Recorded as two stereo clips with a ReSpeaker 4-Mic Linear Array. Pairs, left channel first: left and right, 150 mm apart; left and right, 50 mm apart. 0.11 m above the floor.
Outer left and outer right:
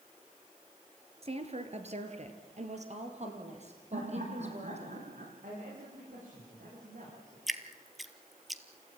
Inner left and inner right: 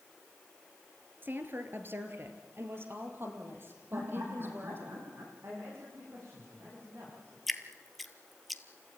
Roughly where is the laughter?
Right.